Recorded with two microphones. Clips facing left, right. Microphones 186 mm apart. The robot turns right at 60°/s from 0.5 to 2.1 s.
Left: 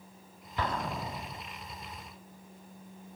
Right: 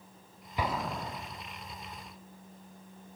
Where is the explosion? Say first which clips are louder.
Even; 15° right (ahead or behind), 0.8 m; by 1.4 s 20° left (ahead or behind), 0.8 m.